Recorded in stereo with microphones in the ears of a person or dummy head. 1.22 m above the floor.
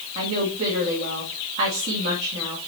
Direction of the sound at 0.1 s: 35° right (ahead or behind).